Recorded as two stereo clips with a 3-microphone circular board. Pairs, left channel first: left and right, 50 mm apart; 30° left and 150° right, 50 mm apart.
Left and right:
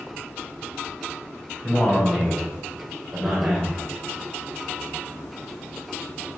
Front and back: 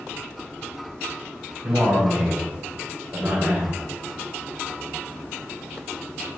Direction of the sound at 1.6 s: Straight behind.